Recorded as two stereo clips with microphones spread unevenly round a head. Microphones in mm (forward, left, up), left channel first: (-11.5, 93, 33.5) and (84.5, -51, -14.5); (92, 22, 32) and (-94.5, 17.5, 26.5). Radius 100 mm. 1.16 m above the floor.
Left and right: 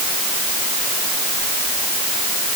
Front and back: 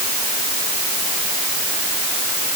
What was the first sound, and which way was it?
Only background noise.